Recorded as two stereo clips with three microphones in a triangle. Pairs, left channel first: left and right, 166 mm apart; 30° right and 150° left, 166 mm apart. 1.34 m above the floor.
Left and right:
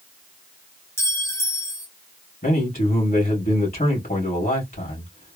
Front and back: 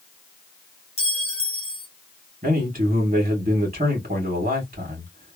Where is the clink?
15° left, 0.9 m.